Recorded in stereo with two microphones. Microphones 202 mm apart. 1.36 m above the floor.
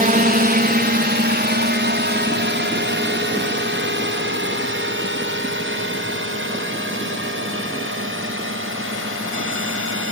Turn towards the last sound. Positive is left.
turn(degrees=-80)